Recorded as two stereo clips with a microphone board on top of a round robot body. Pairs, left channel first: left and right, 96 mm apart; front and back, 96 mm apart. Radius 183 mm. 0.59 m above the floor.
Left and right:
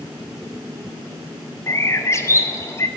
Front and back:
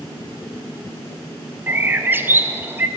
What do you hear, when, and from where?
1.7 s a bird: 125° left, 0.7 m